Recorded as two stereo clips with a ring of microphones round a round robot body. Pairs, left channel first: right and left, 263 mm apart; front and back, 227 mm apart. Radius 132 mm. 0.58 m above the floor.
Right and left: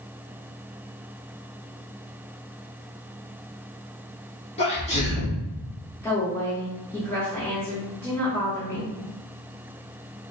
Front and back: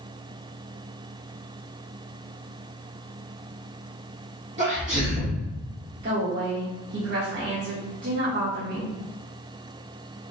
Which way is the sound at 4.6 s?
140° right.